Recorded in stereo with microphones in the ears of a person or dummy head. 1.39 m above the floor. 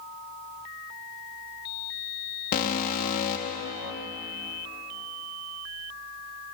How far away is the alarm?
About 1.8 m.